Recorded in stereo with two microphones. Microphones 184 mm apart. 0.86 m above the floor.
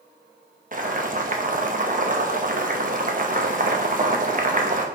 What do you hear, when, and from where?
0.7 s boiling: 50° right (ahead or behind), 0.9 m